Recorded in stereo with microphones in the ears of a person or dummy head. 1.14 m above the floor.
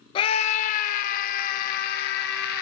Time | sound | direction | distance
0.1 | a scream | 20° left (ahead or behind) | 0.6 m